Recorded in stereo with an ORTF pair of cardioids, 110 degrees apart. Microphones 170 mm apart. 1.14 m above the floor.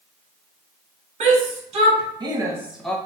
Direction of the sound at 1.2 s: 45° right.